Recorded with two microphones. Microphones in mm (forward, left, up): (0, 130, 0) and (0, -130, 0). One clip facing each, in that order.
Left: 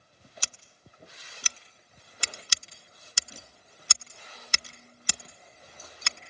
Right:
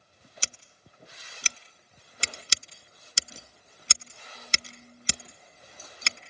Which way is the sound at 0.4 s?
25° right (ahead or behind).